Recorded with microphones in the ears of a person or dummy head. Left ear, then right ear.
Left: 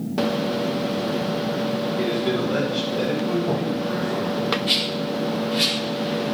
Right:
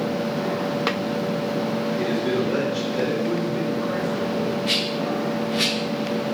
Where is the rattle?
10° right (ahead or behind), 5 m.